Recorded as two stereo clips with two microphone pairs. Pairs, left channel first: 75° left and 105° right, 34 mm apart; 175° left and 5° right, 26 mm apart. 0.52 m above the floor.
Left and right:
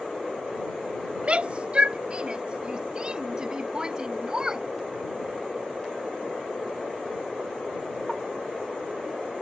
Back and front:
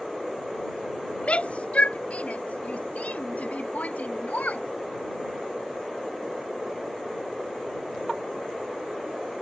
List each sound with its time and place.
1.2 s a shout: 150° right; by 4.7 s 170° right